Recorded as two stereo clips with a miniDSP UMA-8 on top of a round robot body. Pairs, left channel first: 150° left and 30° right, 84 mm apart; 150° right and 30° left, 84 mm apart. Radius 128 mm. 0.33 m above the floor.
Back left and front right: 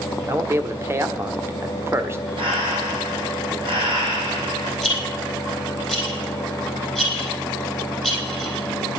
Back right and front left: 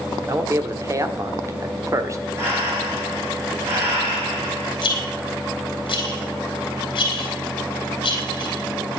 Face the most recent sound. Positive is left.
turn(degrees=-120)